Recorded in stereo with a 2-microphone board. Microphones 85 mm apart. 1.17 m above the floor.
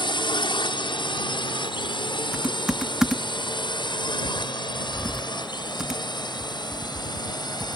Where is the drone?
75° left (ahead or behind); by 7.8 s 60° left (ahead or behind).